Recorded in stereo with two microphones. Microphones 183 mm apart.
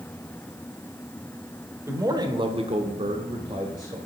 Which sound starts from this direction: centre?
A man speaking, at 1.9 s.